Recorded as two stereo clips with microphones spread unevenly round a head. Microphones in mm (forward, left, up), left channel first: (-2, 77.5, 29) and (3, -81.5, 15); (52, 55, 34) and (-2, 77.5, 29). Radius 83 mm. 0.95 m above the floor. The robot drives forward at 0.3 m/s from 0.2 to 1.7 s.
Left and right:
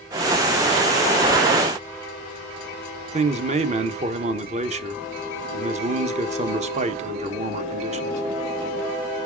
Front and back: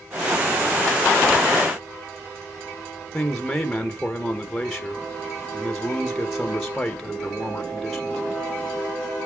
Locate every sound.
3.1 s a man speaking: 115° right, 0.9 m